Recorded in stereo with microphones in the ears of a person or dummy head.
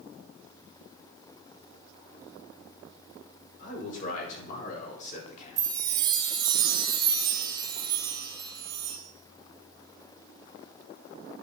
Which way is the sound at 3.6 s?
50° left (ahead or behind).